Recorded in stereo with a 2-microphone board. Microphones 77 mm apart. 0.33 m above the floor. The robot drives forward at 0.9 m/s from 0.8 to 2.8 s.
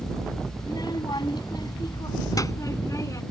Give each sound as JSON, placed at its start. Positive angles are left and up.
{"t": 0.6, "sound": "a child speaking", "side_deg": 70}